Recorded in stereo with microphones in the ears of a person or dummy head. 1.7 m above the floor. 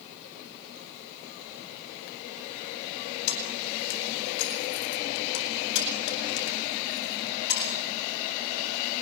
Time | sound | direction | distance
3.3 | keys jangling | 85° left | 9 m